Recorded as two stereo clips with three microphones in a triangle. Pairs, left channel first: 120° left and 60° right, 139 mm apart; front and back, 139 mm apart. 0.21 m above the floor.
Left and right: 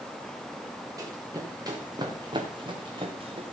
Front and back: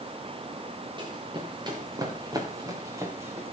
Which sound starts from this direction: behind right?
Running footsteps, at 1.0 s.